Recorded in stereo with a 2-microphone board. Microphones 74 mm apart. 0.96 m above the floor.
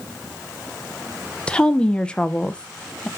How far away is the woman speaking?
About 0.6 m.